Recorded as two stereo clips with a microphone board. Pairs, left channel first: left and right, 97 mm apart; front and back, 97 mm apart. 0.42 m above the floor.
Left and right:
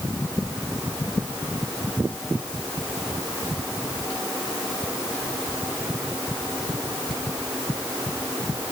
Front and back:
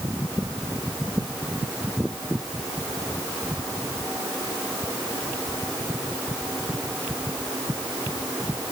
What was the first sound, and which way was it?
Only background noise.